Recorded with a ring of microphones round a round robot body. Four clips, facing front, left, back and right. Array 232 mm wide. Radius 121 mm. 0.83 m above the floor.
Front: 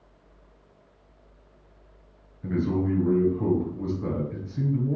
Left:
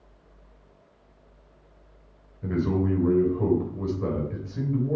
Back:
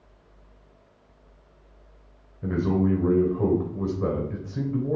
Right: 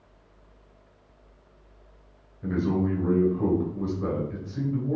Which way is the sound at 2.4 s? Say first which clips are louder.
Even, back 2 dB; 165° left.